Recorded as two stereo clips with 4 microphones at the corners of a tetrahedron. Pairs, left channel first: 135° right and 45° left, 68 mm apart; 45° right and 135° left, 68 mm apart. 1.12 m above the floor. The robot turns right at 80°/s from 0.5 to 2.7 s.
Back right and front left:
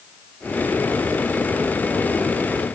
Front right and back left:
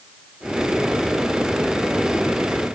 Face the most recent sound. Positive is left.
No sound to turn to.